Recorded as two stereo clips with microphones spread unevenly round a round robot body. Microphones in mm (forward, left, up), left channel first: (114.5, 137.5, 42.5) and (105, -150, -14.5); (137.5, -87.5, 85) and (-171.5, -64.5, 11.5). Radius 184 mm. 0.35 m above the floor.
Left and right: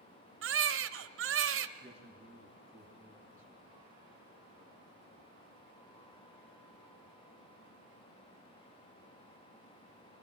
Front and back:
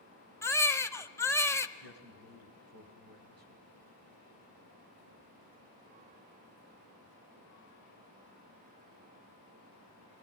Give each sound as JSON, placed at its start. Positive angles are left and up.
{"t": 0.4, "sound": "a baby crying", "azimuth_deg": -95, "distance_m": 0.9}
{"t": 1.8, "sound": "a man speaking", "azimuth_deg": 180, "distance_m": 3.0}